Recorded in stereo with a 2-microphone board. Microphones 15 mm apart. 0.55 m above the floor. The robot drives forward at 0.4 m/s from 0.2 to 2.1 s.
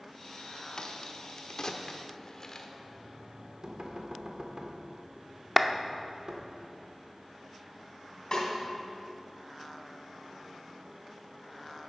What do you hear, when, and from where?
0.8 s a crack: 50° left (ahead or behind), 0.8 m; by 2.7 s 35° left (ahead or behind), 1.0 m
2.8 s knocking: 55° right (ahead or behind), 1.4 m
5.6 s a clap: centre (ahead or behind), 0.6 m
8.3 s a snare drum: 40° left (ahead or behind), 2.5 m